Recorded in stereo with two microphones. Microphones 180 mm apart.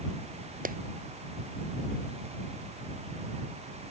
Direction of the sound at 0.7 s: 50° right (ahead or behind).